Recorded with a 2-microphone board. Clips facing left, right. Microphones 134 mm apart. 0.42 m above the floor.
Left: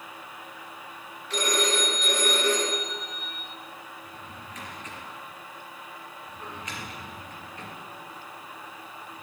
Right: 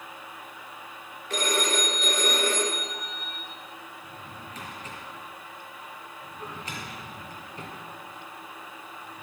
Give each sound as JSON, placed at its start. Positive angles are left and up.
{"t": 1.3, "sound": "a phone ringing", "side_deg": -45, "distance_m": 3.5}
{"t": 4.0, "sound": "a drawer", "side_deg": -35, "distance_m": 3.5}